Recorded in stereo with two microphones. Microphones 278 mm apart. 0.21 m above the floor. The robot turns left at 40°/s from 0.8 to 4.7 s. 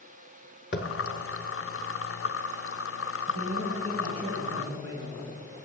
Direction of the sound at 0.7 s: 40° left (ahead or behind).